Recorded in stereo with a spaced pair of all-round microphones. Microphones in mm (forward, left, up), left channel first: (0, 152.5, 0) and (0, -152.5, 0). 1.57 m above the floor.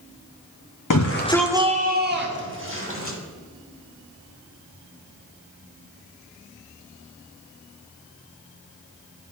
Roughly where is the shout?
Left.